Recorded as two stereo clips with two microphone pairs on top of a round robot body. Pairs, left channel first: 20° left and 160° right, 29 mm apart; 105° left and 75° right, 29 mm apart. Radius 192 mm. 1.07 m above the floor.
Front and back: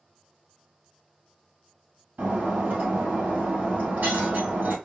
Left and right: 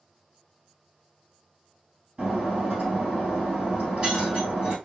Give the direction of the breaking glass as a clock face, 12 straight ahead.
5 o'clock.